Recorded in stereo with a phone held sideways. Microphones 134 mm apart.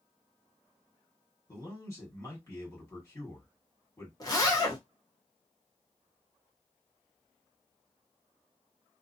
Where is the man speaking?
20° left (ahead or behind), 1.4 m.